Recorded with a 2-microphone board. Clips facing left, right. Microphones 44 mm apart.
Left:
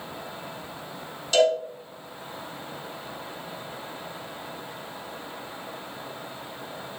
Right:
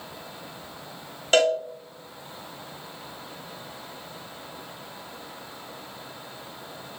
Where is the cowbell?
50° right (ahead or behind), 2.5 m.